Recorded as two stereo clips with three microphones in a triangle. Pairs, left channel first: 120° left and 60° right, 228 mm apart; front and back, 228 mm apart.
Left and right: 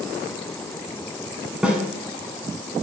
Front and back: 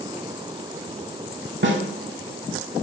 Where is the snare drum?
145° right, 0.5 m.